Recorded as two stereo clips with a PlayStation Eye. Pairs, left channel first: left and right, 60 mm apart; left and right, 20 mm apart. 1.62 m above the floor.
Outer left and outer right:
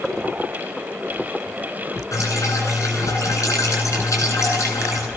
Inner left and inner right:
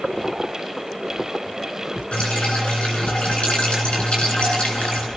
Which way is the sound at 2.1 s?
65° left (ahead or behind).